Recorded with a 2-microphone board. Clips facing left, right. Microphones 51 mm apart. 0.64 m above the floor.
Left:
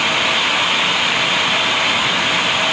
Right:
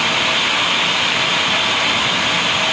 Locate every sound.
Only background noise.